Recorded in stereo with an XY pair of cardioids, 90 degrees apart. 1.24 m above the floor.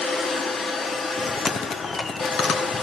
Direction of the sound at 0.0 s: 55° left.